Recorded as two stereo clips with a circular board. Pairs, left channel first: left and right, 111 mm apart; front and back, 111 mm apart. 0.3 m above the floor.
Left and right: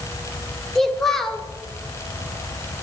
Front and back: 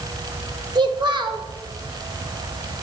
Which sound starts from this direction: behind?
A child speaking, at 0.8 s.